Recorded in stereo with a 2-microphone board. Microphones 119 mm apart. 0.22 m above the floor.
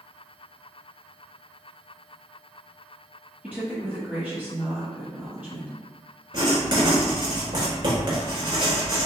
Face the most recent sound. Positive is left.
turn(degrees=-40)  # may be behind; listen again after turning